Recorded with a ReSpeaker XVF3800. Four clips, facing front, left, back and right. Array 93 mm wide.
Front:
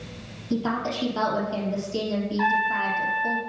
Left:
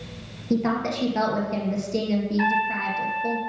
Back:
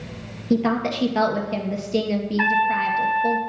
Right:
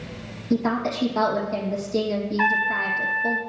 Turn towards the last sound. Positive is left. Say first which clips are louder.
# right 4 dB, back 3 dB
turn(degrees=-160)